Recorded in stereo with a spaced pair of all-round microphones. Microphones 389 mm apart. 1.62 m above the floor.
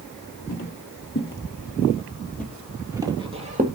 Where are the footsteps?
35° left (ahead or behind), 2 m; by 3.7 s 20° right (ahead or behind), 1.8 m.